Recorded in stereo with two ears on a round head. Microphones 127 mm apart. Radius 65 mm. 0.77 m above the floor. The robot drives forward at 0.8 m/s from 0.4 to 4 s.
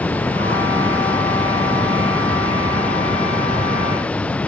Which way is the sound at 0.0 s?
10° left (ahead or behind).